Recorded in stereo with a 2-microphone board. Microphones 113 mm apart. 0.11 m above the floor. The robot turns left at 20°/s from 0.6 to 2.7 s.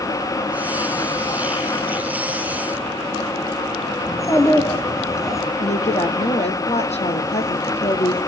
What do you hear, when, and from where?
4.1 s a child speaking: 25° left (ahead or behind), 4 m
5.6 s a woman speaking: 75° left (ahead or behind), 3.5 m